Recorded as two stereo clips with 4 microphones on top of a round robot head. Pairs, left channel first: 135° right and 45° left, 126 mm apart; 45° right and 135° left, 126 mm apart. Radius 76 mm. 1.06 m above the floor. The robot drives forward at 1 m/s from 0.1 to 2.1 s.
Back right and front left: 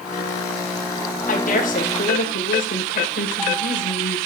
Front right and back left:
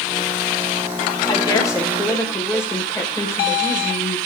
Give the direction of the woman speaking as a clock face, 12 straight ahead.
4 o'clock.